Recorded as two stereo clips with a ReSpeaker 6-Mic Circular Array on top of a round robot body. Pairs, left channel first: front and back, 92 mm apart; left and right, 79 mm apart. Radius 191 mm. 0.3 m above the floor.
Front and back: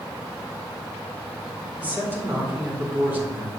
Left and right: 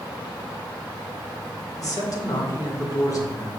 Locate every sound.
1.8 s a man speaking: 115° left, 2 m